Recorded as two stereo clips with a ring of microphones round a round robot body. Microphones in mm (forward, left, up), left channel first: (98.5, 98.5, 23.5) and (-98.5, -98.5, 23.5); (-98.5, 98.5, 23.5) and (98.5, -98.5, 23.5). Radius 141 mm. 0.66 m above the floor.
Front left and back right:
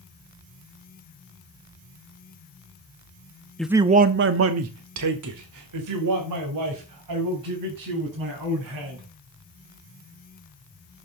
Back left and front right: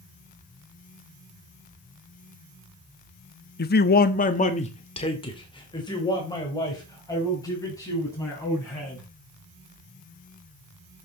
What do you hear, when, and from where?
3.6 s a man speaking: 130° left, 0.8 m; by 9.1 s 145° right, 6.5 m